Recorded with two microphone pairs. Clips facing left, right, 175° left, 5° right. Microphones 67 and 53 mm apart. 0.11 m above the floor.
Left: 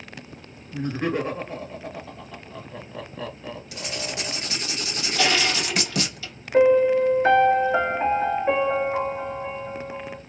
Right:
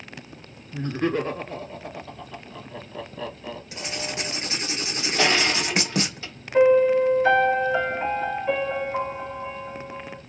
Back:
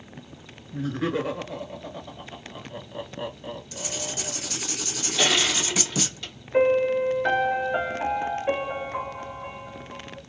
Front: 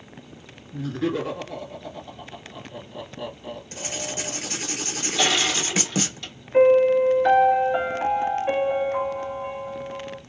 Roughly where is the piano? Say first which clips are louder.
Even, front 5 dB; left.